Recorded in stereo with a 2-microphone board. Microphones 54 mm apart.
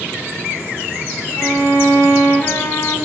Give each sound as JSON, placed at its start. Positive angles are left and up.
{"t": 1.4, "sound": "a violin", "side_deg": 45, "distance_m": 1.7}